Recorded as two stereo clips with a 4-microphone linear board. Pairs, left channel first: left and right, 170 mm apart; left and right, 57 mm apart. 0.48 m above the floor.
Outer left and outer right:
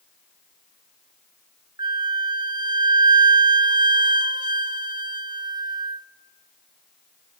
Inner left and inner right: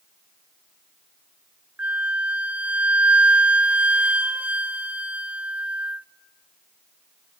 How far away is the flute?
About 0.5 m.